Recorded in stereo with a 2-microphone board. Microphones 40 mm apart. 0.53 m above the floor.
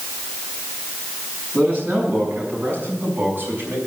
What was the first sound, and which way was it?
A man speaking, 40° right (ahead or behind).